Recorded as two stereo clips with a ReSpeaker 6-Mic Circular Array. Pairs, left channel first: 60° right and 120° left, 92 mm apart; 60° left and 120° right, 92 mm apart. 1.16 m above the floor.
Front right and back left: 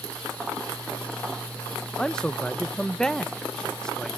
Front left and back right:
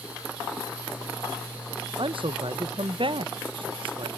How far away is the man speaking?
About 0.5 m.